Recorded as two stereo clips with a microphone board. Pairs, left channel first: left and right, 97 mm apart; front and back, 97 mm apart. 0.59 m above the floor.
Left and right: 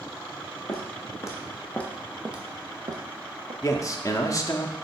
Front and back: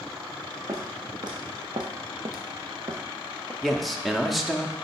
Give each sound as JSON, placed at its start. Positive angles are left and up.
{"t": 0.7, "sound": "footsteps", "azimuth_deg": 135, "distance_m": 2.0}
{"t": 3.6, "sound": "a man speaking", "azimuth_deg": 90, "distance_m": 0.7}